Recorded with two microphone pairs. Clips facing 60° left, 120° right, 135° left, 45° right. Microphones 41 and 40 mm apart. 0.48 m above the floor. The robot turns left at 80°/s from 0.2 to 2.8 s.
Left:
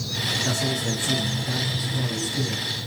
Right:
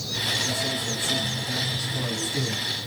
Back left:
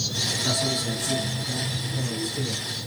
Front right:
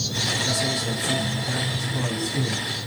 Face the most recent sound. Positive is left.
turn(degrees=-100)